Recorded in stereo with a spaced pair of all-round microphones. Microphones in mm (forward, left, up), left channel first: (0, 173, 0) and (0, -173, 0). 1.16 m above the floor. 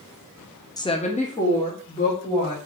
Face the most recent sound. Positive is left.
turn(degrees=15)  # may be behind; listen again after turning